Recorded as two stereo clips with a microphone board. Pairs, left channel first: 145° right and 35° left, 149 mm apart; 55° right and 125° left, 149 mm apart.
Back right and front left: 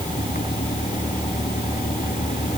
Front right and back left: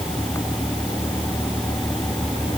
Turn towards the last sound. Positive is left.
turn(degrees=-125)